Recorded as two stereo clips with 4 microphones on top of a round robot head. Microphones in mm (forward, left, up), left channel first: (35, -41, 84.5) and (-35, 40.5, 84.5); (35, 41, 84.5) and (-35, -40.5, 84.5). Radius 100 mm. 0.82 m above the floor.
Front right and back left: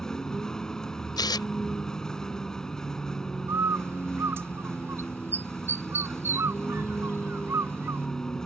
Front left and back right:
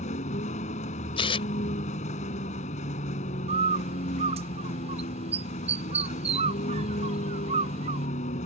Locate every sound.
0.0 s a vehicle: 35° left
1.2 s tearing paper: 5° left
3.5 s a bird: 160° right